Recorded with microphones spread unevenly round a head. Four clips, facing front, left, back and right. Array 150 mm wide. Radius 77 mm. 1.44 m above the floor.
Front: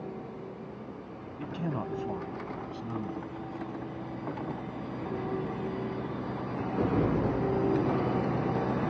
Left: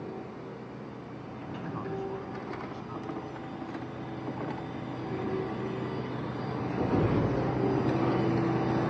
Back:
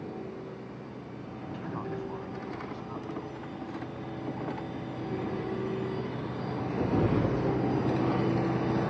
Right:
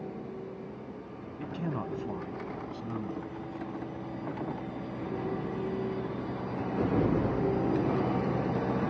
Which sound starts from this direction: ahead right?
A man speaking, at 1.4 s.